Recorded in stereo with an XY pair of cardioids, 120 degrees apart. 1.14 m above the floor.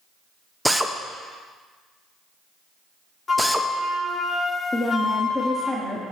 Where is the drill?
Straight ahead, 0.9 m.